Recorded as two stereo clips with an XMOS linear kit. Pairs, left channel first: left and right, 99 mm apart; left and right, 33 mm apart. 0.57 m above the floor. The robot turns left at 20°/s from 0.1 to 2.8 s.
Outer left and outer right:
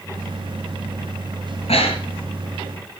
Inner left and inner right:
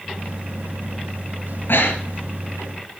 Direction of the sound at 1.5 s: 85° left.